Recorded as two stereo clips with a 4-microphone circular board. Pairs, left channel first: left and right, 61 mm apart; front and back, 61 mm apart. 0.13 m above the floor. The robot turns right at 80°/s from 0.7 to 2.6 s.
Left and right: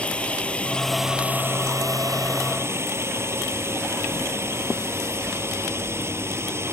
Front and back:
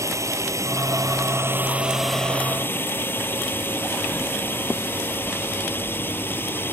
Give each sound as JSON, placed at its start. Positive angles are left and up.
{"t": 0.0, "sound": "a drone", "azimuth_deg": 160}